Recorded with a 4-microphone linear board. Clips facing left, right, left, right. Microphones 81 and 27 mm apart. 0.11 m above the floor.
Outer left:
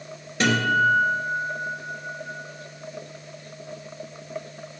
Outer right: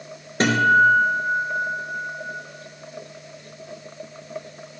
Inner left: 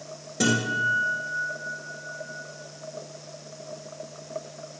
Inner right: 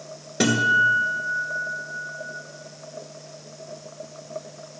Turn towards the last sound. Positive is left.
turn(degrees=-40)  # may be behind; listen again after turning